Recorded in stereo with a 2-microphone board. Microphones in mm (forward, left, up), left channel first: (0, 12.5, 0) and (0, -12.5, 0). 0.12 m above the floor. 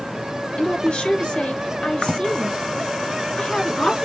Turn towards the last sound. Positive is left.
turn(degrees=45)  # may be behind; listen again after turning